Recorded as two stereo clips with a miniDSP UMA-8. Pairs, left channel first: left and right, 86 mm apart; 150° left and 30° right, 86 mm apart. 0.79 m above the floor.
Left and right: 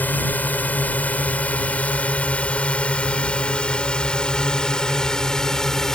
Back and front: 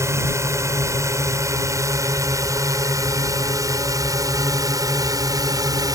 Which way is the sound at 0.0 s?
20° left.